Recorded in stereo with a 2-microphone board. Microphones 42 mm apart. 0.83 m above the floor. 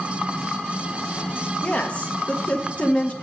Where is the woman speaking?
35° left (ahead or behind), 1.2 m.